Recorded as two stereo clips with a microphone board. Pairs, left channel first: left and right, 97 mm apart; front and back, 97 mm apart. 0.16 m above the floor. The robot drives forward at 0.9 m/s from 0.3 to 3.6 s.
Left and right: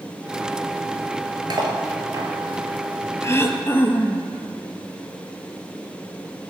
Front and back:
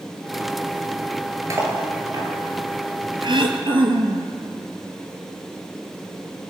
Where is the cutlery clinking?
125° right, 2.0 m; by 2.3 s 140° right, 2.5 m.